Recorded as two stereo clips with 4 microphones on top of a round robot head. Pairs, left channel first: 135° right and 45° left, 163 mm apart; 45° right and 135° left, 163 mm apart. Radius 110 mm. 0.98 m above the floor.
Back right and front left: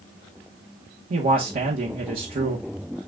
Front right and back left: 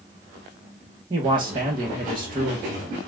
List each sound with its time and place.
1.1 s a man speaking: 75° left, 1.1 m